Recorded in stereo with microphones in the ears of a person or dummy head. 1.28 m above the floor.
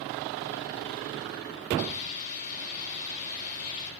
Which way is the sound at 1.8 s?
40° left (ahead or behind).